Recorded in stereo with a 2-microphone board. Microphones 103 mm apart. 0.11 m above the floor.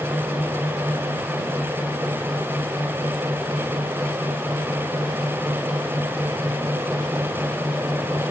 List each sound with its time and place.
Only background noise.